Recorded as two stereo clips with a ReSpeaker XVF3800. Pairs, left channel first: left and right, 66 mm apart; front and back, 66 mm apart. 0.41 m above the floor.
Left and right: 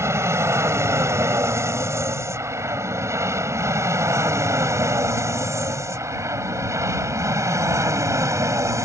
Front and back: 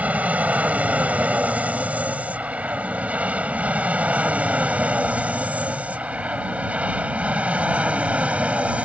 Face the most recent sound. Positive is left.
turn(degrees=-115)